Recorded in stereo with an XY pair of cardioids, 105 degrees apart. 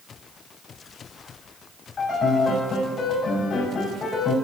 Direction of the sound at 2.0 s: 55° left.